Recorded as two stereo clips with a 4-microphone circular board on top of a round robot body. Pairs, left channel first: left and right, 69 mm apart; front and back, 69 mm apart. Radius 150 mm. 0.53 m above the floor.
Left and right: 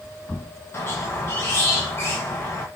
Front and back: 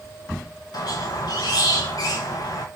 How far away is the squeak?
About 1.0 m.